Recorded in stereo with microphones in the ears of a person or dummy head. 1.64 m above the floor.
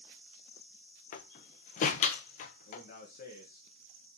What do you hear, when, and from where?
1.1 s a door slam: 45° left (ahead or behind), 0.9 m
2.7 s a man speaking: 50° left (ahead or behind), 1.7 m